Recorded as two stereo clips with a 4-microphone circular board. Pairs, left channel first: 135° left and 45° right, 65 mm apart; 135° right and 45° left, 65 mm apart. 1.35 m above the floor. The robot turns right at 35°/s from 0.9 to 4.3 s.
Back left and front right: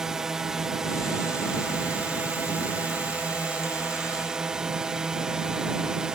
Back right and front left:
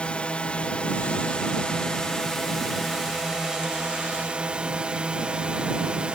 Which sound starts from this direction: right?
A drone, at 0.0 s.